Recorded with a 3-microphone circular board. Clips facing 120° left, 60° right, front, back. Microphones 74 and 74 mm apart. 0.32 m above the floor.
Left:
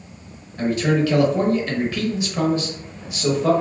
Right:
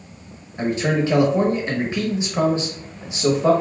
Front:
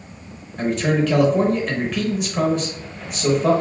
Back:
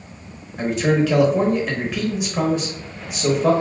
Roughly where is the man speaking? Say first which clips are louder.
Left 1 dB, back 1 dB; right.